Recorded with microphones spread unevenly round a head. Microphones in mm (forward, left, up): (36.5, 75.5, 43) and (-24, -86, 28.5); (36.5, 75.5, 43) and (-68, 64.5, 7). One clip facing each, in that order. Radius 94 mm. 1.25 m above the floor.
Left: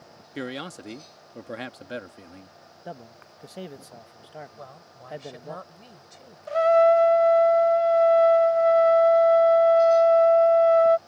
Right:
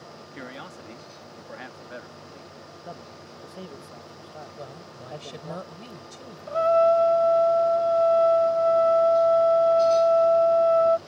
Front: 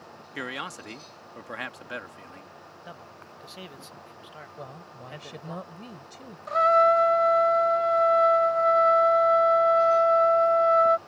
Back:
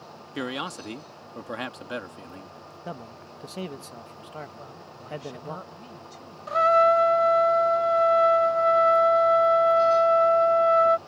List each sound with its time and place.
0.3 s a man speaking: 115° left
2.9 s a man speaking: 145° left
4.6 s a woman speaking: 55° right
6.5 s a trumpet: 135° left